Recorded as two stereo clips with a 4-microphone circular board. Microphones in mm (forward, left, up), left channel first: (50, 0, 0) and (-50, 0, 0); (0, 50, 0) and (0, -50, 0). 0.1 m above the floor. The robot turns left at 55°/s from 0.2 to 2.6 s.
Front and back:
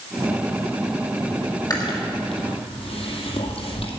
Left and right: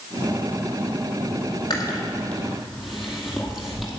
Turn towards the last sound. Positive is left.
turn(degrees=0)